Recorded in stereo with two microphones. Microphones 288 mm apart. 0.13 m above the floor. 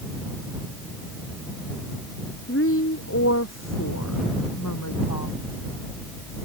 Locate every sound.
2.5 s a woman speaking: 45° left (ahead or behind); by 5.5 s 80° left